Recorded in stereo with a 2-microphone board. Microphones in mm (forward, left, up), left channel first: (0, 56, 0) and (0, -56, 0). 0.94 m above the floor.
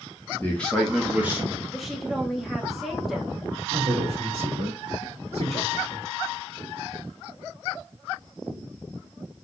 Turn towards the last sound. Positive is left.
turn(degrees=-75)  # may be behind; listen again after turning